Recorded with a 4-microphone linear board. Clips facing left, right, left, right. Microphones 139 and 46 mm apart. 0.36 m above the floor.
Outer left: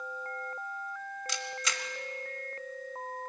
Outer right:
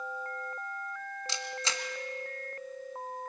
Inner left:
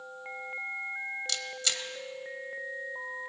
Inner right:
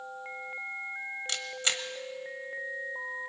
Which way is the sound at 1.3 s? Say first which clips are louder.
Outer right 2 dB, inner right 2 dB; 30° right (ahead or behind).